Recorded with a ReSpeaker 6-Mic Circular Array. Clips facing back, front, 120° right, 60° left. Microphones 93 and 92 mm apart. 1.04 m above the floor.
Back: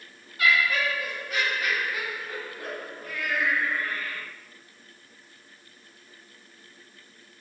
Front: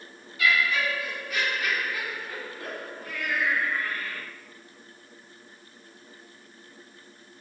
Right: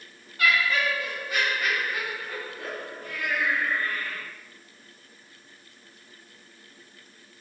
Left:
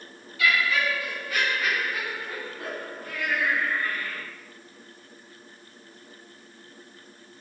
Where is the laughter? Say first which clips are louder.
Back 1 dB, even; 145° right, 1.2 m; by 4.2 s 85° left, 1.6 m.